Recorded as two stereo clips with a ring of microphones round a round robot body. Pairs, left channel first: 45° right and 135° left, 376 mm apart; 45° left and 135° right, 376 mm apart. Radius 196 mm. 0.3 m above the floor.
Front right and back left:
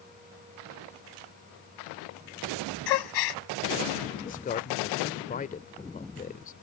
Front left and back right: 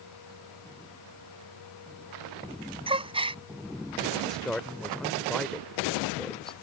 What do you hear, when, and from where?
2.9 s a gasp: 60° right
4.2 s a man speaking: 40° right